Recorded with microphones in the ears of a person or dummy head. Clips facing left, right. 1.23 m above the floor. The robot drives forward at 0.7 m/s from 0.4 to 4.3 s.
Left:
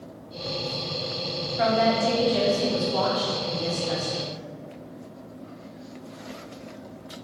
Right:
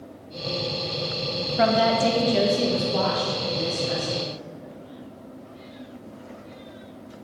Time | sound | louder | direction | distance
1.6 | a woman speaking | right 2 dB | 60° right (ahead or behind) | 0.9 m